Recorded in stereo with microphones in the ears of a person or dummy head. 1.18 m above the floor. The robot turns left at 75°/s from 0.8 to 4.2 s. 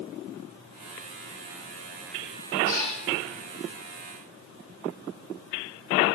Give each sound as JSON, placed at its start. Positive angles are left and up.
{"t": 2.6, "sound": "a cat meowing", "side_deg": 40, "distance_m": 4.5}